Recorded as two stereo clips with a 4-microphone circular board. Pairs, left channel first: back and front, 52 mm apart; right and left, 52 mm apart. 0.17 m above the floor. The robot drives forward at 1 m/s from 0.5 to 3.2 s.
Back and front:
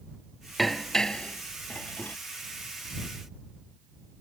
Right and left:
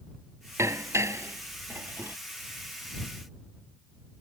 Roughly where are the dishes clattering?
Left.